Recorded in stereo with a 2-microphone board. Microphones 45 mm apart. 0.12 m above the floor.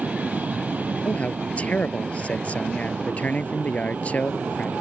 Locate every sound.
0.0 s an aircraft: 35° right (ahead or behind)
1.0 s a man speaking: 30° left (ahead or behind)